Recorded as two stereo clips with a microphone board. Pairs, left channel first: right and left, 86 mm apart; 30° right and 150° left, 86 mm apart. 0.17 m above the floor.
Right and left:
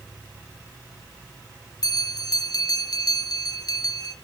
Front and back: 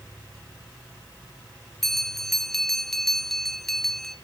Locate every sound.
1.8 s a bell: 115° right, 1.1 m